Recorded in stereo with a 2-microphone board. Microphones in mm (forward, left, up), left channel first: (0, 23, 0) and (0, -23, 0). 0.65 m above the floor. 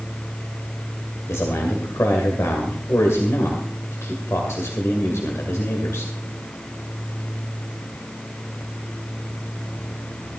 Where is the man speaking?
75° left (ahead or behind), 2 m.